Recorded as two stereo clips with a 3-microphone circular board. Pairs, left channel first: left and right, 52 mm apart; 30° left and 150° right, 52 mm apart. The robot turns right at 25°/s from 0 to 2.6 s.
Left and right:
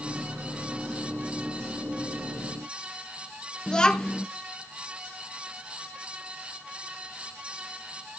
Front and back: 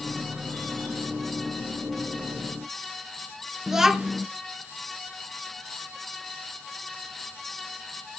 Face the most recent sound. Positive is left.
turn(degrees=140)